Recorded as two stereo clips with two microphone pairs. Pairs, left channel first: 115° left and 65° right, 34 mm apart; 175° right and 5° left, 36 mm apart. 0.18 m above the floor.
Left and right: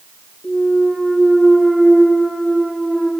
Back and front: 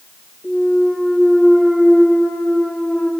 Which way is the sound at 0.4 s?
175° right.